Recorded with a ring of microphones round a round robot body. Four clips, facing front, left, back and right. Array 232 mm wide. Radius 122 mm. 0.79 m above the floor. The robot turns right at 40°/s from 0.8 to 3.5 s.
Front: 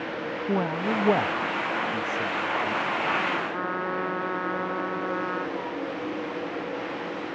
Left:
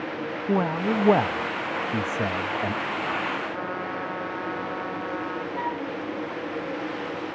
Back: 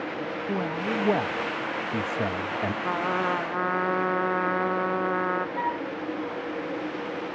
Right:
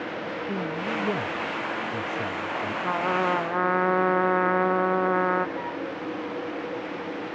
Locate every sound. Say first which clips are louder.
0.5 s a man speaking: left 8 dB, front 3 dB; 70° left; by 2.7 s 145° left
2.8 s a trumpet: right 4 dB, back 1 dB; 130° right; by 5.5 s 105° right
5.6 s a flute: left 2 dB, back 3 dB; 155° left